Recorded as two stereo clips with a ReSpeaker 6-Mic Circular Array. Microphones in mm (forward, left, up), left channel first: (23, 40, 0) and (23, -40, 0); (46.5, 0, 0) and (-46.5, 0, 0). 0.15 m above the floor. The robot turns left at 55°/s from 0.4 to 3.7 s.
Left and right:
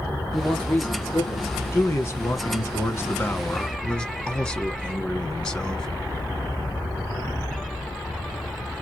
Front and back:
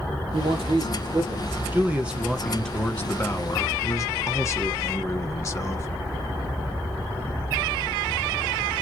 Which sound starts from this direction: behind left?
A man speaking, at 1.7 s.